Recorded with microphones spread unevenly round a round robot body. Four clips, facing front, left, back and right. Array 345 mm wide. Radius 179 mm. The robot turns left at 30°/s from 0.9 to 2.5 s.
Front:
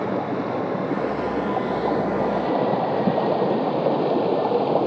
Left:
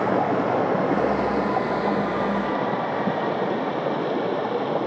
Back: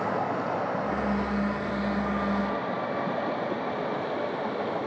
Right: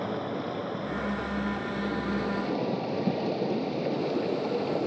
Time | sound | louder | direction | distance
0.0 | running water | left 11 dB, front 4 dB | 60° left | ?